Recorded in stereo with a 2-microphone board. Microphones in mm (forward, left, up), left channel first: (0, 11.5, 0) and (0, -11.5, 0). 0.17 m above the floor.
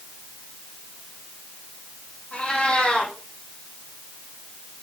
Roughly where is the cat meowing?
Left.